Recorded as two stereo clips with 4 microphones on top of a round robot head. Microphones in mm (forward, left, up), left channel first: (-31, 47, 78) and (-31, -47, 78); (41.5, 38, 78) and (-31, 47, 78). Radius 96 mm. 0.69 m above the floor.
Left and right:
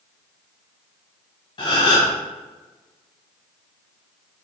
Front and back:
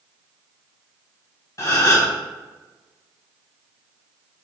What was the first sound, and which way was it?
A gasp, 40° left.